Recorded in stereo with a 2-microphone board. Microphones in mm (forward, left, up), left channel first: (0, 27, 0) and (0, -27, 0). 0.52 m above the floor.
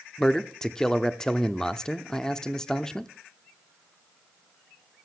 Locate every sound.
0.2 s a man speaking: 10° left (ahead or behind), 0.8 m